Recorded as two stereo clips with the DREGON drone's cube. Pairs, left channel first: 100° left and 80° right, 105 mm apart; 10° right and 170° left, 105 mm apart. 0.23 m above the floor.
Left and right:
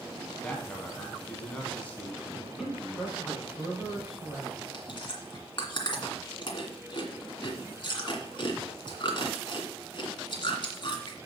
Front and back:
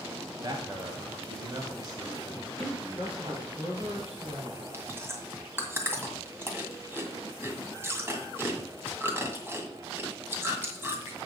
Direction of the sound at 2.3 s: 165° right.